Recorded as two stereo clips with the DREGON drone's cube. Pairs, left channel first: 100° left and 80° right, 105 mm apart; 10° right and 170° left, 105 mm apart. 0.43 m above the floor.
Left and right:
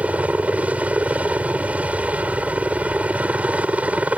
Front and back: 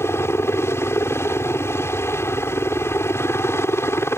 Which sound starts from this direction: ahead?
A helicopter, at 0.0 s.